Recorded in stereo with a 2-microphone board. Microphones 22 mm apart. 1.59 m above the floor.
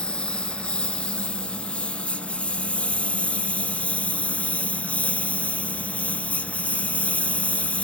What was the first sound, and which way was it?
A lawn mower, 50° left (ahead or behind).